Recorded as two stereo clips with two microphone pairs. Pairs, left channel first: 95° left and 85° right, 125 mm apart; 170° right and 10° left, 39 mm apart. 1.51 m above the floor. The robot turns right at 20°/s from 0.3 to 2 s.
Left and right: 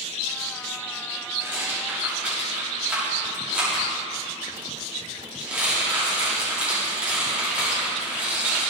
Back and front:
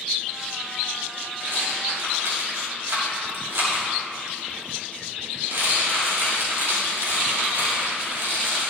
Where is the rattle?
15° right, 2.5 m; by 8.7 s 5° right, 2.5 m.